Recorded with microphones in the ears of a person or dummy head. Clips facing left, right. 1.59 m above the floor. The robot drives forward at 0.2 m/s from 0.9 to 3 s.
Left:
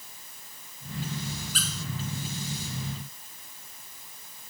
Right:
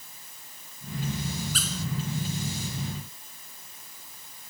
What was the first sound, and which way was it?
A squeak, 30° right (ahead or behind).